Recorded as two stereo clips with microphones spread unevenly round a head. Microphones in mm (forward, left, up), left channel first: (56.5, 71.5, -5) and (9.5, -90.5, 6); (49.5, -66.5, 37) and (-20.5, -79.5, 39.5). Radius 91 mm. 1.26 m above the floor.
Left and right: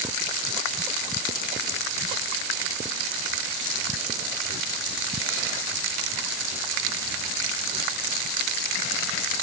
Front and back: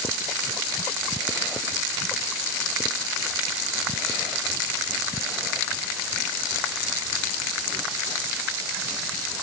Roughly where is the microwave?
I don't hear a microwave.